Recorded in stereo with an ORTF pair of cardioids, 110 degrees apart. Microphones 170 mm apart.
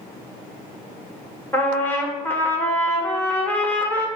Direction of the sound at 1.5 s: 10° left.